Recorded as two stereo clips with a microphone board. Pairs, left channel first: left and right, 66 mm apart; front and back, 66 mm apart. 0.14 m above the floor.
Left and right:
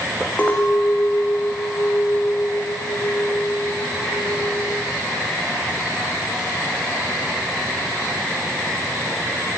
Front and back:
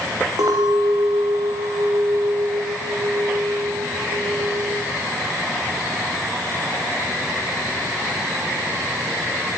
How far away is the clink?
About 6 m.